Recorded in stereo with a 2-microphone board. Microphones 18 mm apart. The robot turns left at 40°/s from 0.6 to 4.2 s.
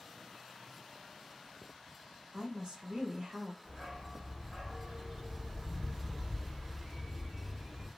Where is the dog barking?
55° right (ahead or behind), 1.7 m; by 7.9 s 60° right (ahead or behind), 1.7 m.